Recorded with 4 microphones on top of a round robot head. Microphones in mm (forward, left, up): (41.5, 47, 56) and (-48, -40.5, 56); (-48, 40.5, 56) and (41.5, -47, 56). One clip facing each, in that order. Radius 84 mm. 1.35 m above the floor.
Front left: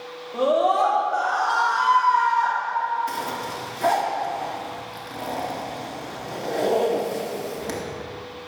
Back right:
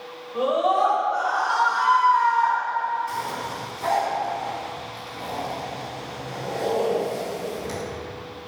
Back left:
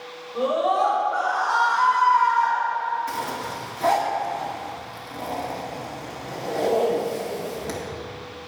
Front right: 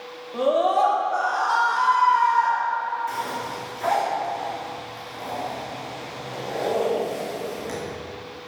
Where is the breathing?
No breathing in this recording.